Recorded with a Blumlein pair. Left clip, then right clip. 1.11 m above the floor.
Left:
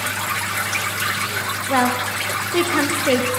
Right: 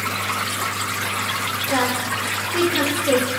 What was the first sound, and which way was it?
A woman speaking, 15° left.